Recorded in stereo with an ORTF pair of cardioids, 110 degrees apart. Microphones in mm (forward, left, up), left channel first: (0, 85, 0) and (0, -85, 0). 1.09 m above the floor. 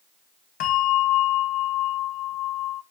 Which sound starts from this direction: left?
A bell, at 0.6 s.